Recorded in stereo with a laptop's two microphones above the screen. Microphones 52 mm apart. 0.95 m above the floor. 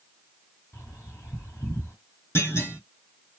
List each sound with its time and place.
0.7 s a bird: 55° left (ahead or behind), 2 m
2.4 s a clunk: 50° left (ahead or behind), 1.3 m